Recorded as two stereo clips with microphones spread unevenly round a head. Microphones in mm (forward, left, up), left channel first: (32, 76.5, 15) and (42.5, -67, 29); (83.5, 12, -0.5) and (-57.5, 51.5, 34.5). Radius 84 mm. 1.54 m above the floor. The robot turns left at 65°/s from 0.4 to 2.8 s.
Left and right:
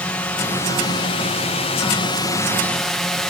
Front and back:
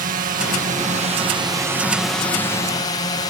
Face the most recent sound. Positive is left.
turn(degrees=10)